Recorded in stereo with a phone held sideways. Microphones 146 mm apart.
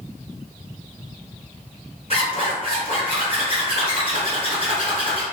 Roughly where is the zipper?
Left.